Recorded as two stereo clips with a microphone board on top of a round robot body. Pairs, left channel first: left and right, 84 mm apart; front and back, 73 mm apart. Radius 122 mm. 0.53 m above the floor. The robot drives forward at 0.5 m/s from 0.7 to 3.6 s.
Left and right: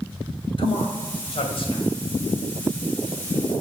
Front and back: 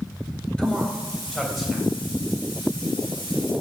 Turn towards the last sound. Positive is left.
turn(degrees=100)